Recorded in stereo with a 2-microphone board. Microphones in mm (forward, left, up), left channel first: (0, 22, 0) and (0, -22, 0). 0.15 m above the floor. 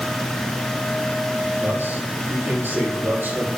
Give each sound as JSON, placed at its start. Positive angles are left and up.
{"t": 1.6, "sound": "a man speaking", "side_deg": -55, "distance_m": 5.5}